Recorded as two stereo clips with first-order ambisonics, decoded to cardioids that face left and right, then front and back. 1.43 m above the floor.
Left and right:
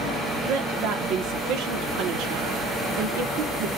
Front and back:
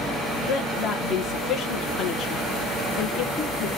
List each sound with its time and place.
0.5 s a woman speaking: 60° right, 1.2 m